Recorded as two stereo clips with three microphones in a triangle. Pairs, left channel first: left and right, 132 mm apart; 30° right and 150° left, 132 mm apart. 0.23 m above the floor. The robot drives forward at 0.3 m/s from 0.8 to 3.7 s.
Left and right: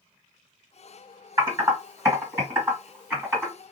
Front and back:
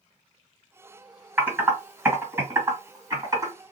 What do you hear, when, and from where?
1.4 s typing on a keyboard: 145° right, 1.7 m; by 3.5 s 160° right, 2 m